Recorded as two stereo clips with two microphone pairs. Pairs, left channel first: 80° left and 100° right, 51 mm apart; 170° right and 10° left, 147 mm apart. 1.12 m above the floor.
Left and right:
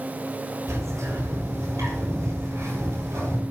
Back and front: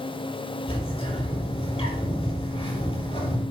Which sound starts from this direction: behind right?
A bird, at 0.7 s.